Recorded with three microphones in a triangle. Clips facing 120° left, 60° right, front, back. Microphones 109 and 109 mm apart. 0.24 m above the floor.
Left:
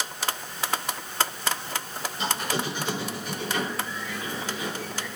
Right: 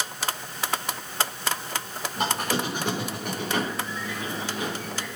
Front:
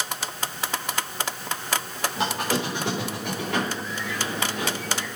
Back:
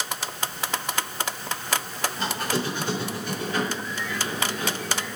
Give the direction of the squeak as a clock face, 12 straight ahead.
1 o'clock.